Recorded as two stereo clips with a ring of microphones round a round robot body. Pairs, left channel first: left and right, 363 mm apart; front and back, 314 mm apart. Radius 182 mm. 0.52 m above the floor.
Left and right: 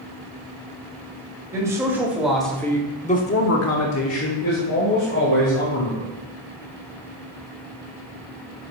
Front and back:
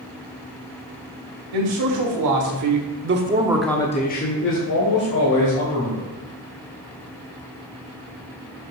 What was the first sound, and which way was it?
A man speaking, 170° right.